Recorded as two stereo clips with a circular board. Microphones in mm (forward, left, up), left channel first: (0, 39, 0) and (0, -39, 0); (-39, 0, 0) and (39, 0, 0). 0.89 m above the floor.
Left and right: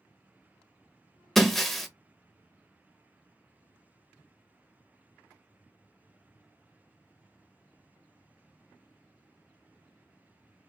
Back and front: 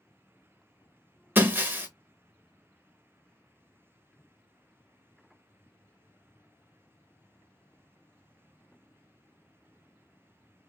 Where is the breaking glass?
5° left, 0.6 m.